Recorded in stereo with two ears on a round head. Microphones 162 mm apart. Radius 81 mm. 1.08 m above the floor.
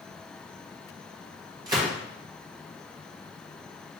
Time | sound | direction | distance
1.7 | a gunshot | 20° right (ahead or behind) | 1.2 m